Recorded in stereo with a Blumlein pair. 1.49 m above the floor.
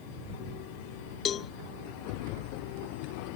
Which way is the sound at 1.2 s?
25° left.